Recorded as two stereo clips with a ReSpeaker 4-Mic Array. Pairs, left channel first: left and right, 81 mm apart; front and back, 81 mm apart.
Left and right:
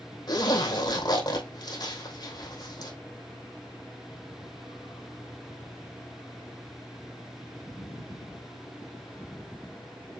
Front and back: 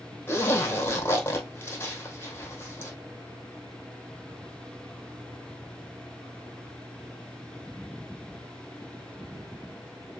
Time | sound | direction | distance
0.3 | a zipper | 60° left | 2.5 m